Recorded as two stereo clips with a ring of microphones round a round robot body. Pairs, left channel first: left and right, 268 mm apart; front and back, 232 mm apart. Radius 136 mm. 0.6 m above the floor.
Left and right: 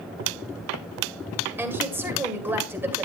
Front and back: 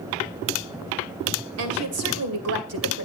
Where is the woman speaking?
170° right, 2 m.